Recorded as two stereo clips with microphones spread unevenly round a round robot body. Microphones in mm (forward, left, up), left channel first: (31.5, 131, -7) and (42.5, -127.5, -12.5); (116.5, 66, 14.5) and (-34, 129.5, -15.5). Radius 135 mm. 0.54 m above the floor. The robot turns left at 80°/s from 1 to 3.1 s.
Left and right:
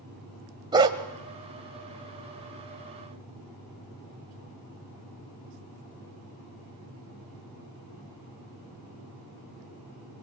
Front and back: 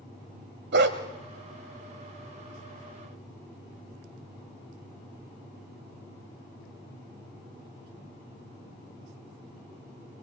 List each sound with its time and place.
0.7 s a dog barking: 160° right, 1.1 m